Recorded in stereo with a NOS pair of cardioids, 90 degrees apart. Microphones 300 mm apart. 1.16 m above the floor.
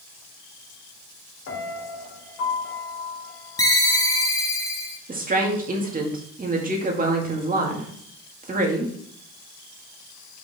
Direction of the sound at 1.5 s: 65° left.